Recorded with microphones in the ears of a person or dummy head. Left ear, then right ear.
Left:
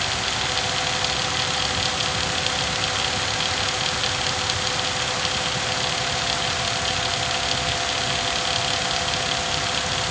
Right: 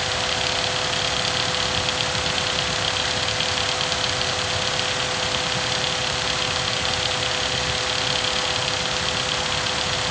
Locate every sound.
Only background noise.